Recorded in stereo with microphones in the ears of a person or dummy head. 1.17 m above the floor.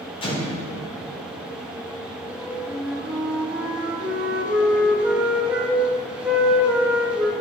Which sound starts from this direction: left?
An explosion, at 0.2 s.